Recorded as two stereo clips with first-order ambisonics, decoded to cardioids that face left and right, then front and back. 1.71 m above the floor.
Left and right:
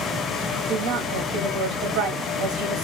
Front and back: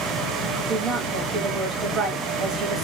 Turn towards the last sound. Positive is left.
turn(degrees=-110)